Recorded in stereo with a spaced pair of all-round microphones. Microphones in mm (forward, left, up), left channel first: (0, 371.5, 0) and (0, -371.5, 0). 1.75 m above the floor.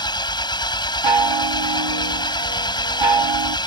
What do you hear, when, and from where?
0.0 s an engine running: 5° left (ahead or behind)
1.0 s a chime: 35° right (ahead or behind)